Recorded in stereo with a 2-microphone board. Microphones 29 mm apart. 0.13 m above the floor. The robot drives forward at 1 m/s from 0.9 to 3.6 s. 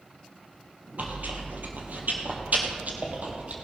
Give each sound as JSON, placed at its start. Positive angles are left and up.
{"t": 1.0, "sound": "chewing", "side_deg": -65, "distance_m": 2.5}